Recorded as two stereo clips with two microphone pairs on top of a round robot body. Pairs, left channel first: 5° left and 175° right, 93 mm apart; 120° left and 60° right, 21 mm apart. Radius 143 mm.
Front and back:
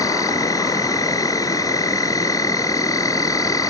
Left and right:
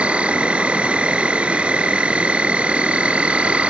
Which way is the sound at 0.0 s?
50° right.